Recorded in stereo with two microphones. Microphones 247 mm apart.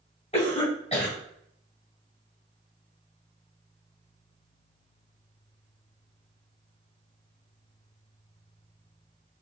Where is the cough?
25° left (ahead or behind), 1.6 m.